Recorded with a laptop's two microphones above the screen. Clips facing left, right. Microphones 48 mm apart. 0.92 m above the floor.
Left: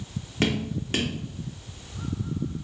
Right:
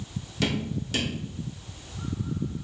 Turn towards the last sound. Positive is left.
turn(degrees=40)  # may be behind; listen again after turning